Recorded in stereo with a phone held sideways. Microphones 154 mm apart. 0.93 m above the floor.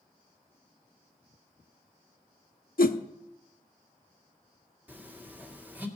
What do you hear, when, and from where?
2.8 s a whoosh: 70° left (ahead or behind), 0.7 m
4.9 s a phone buzzing: 10° right (ahead or behind), 1.6 m